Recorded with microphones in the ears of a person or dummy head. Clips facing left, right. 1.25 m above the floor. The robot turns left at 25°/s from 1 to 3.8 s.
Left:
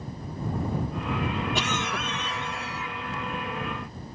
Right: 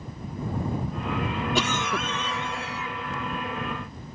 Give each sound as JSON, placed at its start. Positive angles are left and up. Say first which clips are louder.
{"t": 1.6, "sound": "a cough", "louder": "right 3 dB", "azimuth_deg": -90}